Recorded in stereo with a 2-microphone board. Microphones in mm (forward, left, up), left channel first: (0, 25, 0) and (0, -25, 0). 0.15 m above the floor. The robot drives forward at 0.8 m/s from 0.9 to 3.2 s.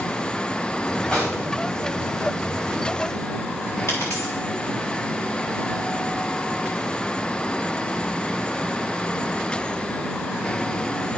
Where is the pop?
20° left (ahead or behind), 4.5 m.